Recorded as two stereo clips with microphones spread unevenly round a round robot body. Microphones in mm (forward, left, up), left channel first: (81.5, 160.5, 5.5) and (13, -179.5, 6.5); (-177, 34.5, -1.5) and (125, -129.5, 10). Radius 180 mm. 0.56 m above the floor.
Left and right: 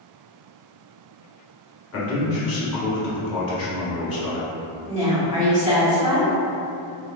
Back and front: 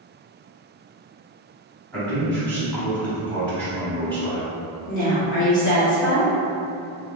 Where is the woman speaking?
165° right, 1.6 m.